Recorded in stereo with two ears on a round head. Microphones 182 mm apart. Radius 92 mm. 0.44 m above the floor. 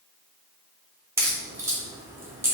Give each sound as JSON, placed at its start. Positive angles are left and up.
{"t": 1.2, "sound": "a crack", "side_deg": -15, "distance_m": 0.6}